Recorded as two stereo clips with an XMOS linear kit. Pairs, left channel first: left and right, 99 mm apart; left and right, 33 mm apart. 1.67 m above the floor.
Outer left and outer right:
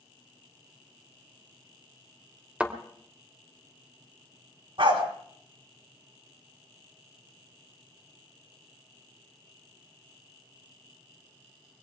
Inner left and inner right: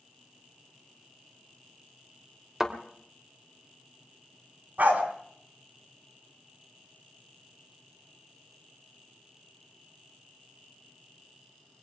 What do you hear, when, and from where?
2.6 s a thud: 10° right (ahead or behind), 2 m
4.8 s a dog barking: 65° right (ahead or behind), 3 m